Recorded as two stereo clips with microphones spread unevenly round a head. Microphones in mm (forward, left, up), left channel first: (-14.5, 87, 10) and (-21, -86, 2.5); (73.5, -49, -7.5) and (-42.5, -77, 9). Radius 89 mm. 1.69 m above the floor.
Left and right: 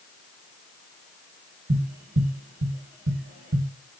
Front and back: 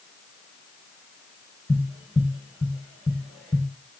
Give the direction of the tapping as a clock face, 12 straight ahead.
3 o'clock.